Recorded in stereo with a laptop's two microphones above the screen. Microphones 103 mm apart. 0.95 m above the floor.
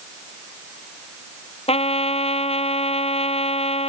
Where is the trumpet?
80° left.